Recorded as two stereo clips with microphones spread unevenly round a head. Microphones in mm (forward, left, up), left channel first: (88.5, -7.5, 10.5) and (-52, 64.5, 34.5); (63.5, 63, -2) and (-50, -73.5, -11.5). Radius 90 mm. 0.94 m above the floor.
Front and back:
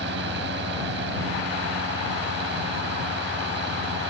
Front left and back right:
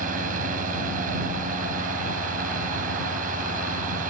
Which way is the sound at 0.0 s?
Straight behind.